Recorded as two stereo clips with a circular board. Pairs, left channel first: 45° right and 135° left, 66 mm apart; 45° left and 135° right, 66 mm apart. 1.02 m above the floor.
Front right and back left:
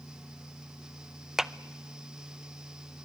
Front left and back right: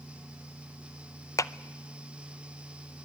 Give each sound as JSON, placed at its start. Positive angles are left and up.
{"t": 1.4, "sound": "a clap", "azimuth_deg": 55, "distance_m": 0.6}